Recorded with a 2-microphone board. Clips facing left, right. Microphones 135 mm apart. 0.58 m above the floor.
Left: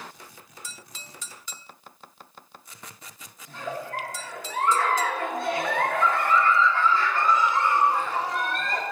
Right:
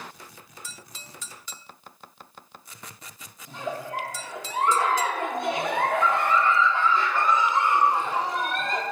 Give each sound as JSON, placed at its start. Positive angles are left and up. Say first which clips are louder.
{"t": 3.5, "sound": "a giggle", "louder": "right 1 dB", "side_deg": -20, "distance_m": 0.9}